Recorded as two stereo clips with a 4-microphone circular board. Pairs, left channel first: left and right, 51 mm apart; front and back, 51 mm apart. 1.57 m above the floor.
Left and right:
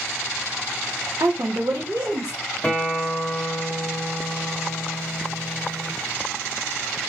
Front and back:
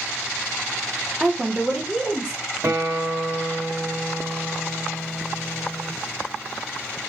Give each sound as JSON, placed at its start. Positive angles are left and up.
{"t": 1.2, "sound": "a woman speaking", "azimuth_deg": -95, "distance_m": 0.6}
{"t": 2.6, "sound": "a guitar", "azimuth_deg": 165, "distance_m": 1.0}